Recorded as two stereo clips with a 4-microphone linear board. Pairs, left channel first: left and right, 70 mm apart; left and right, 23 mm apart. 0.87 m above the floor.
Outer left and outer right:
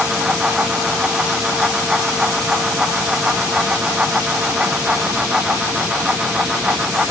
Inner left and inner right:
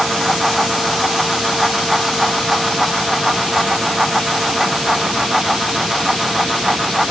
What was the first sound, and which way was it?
Only background noise.